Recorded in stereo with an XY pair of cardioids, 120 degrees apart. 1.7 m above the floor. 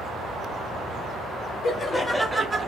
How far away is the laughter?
About 0.7 m.